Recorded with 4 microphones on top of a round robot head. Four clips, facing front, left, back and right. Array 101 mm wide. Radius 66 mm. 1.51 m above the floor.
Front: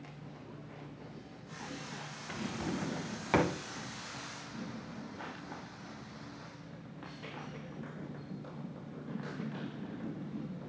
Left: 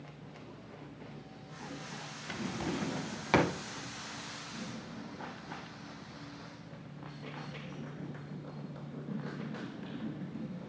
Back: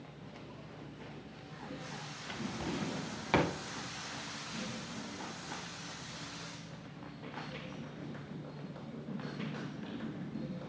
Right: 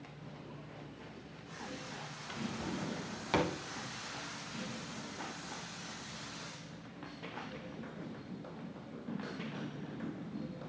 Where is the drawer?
80° left, 0.6 m.